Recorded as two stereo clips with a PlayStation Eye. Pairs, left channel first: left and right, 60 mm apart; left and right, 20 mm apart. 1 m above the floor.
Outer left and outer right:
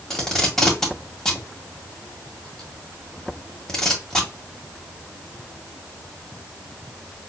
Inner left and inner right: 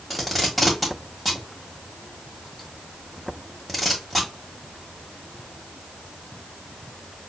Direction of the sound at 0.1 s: 10° left (ahead or behind).